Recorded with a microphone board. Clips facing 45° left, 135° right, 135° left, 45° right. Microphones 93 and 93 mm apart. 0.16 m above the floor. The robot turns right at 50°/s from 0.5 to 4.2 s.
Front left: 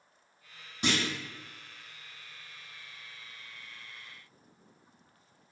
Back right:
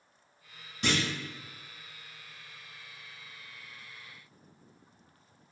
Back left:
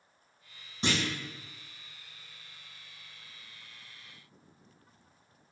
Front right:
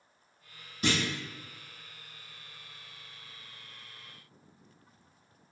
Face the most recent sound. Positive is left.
turn(degrees=-85)